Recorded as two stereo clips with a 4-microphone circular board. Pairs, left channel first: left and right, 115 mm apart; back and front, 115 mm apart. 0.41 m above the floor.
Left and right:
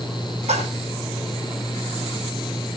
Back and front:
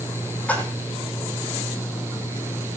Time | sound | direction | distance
0.5 | a splash | 100° right | 3.5 m